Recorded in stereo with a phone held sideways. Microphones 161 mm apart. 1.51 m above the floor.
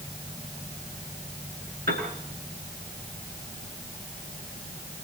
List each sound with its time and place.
1.9 s a piano: 80° right, 6 m